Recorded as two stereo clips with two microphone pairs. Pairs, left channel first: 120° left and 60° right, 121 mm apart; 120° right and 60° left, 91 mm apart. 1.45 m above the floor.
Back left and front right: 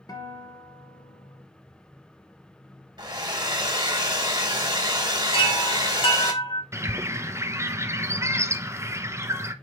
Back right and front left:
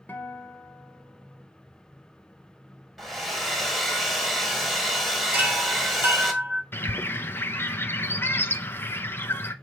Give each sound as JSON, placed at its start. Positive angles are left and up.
{"t": 0.1, "sound": "a guitar", "azimuth_deg": 170, "distance_m": 1.5}
{"t": 3.0, "sound": "a hair dryer", "azimuth_deg": -30, "distance_m": 1.4}
{"t": 5.3, "sound": "a chime", "azimuth_deg": 125, "distance_m": 1.8}
{"t": 6.7, "sound": "a bird", "azimuth_deg": -95, "distance_m": 0.6}